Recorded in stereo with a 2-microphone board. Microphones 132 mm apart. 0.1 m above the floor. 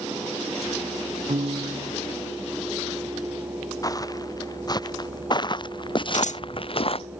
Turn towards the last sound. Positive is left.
turn(degrees=75)  # may be behind; listen again after turning